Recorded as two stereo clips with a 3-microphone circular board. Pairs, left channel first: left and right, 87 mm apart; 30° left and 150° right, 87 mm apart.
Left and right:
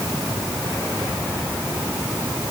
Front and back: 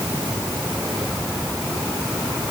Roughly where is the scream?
No scream in this recording.